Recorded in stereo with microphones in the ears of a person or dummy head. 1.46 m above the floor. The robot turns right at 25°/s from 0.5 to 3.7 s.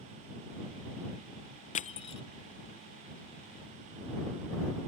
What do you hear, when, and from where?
1.8 s crushing: 35° left (ahead or behind); by 2.2 s 25° left (ahead or behind)